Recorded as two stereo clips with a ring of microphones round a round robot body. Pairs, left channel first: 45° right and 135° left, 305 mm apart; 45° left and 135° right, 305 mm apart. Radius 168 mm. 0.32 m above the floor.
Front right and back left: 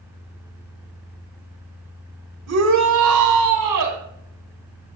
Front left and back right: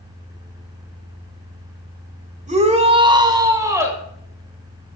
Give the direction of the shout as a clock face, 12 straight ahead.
7 o'clock.